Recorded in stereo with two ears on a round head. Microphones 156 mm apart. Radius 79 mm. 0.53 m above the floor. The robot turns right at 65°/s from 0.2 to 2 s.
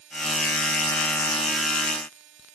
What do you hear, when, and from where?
Only background noise.